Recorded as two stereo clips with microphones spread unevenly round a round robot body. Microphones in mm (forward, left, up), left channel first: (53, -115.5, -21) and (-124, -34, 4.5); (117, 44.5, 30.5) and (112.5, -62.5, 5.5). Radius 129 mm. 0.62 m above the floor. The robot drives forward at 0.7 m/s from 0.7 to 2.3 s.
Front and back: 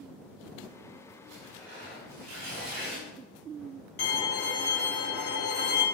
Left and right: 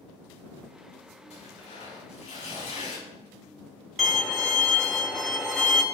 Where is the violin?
Straight ahead, 1.9 m.